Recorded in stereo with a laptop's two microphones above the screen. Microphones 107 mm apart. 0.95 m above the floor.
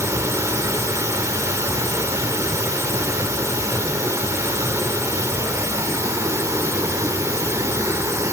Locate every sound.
0.0 s running water: 30° right (ahead or behind), 0.8 m